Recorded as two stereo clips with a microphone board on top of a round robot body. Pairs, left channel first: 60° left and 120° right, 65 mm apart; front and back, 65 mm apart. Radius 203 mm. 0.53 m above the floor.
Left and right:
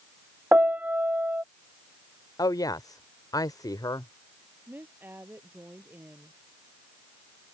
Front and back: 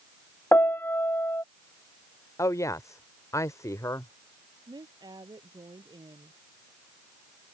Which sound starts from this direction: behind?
A woman speaking, at 4.7 s.